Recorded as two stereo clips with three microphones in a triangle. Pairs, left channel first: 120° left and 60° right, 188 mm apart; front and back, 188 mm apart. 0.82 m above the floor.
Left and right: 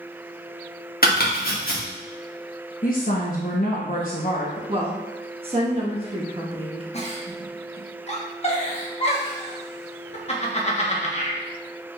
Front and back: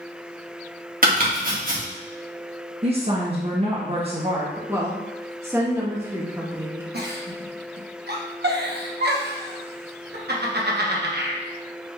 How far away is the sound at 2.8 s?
About 0.8 m.